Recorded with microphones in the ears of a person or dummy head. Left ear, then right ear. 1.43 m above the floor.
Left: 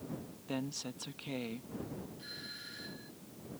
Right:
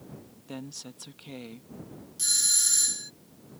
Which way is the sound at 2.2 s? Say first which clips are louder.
Right 24 dB; 75° right (ahead or behind).